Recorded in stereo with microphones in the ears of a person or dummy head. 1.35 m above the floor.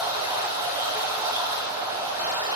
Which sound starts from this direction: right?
Running water, at 0.0 s.